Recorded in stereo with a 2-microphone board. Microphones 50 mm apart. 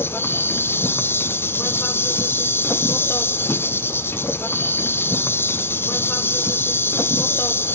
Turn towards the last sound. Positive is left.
turn(degrees=50)  # may be behind; listen again after turning